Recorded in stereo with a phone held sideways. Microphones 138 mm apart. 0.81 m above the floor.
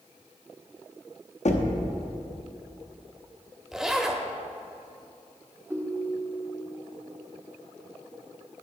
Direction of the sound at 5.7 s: 15° right (ahead or behind).